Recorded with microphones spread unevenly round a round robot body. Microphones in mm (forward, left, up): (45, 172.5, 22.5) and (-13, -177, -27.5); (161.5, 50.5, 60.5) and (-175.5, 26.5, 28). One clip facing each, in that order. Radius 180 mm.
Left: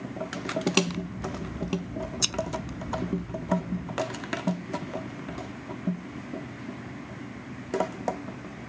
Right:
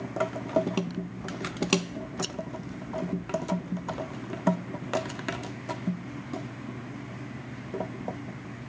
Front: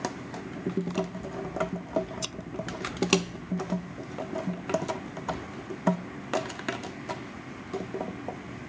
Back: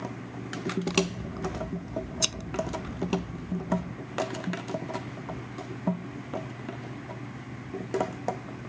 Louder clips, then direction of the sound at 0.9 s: Left 2 dB, back 3 dB; 140° left.